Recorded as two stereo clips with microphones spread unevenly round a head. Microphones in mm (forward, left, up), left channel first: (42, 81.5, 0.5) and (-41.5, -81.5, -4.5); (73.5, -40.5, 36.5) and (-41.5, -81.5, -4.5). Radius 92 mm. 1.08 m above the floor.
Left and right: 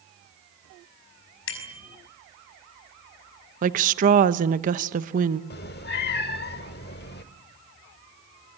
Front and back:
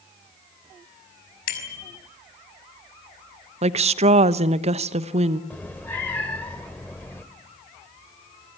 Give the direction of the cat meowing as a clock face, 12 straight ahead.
9 o'clock.